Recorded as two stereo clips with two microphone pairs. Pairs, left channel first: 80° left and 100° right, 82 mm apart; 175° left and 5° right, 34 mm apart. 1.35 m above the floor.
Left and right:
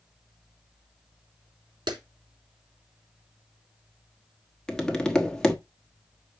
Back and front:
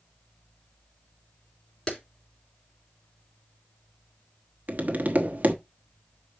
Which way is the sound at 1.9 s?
120° right.